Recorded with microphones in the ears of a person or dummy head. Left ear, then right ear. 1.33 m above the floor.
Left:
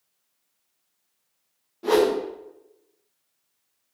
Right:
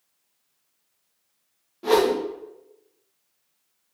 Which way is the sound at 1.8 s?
Centre (ahead or behind).